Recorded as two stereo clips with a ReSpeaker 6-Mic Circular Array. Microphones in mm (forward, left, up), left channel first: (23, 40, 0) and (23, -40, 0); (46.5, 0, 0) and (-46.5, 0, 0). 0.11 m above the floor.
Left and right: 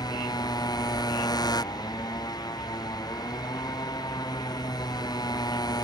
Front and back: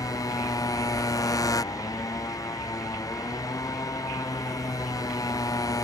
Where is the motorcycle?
50° left.